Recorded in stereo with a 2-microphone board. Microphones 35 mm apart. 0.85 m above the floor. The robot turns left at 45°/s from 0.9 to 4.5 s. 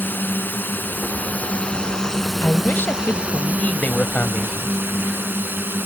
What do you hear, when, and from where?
0.0 s a drone: 70° left; by 5.9 s 90° right
2.4 s a man speaking: 115° left; by 4.8 s 20° left